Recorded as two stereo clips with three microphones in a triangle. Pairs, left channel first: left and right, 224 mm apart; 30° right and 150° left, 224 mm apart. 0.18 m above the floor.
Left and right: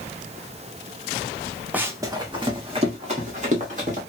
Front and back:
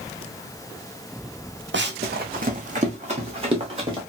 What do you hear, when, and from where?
1.7 s running footsteps: 170° right, 0.6 m; by 4.0 s 145° right, 1.7 m